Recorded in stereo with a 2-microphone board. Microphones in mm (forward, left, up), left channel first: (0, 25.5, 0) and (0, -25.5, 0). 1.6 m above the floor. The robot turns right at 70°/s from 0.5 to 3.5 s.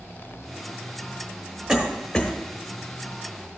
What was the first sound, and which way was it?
A cough, 20° right (ahead or behind).